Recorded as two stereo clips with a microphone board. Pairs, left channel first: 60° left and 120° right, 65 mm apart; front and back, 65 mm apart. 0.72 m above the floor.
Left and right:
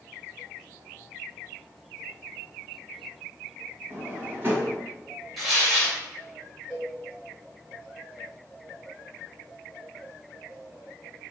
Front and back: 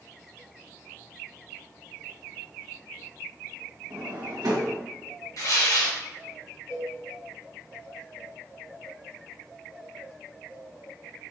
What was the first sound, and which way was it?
A drawer, 170° right.